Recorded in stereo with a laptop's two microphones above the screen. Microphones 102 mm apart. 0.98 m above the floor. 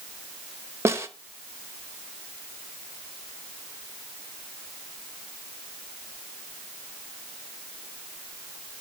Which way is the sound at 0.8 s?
25° right (ahead or behind).